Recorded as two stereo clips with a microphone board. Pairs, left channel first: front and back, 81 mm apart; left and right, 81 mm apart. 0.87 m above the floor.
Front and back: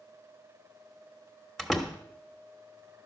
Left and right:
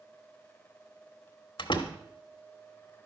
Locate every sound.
1.6 s a door slam: 85° left, 1.1 m